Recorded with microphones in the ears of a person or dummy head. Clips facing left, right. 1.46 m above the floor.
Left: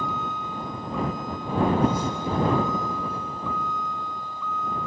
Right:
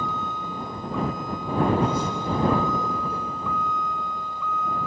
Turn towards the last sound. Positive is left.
turn(degrees=-65)  # may be behind; listen again after turning